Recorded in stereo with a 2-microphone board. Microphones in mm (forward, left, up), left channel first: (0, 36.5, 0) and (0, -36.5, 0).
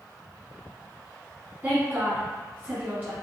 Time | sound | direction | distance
1.6 | a woman speaking | 20° right (ahead or behind) | 1.3 m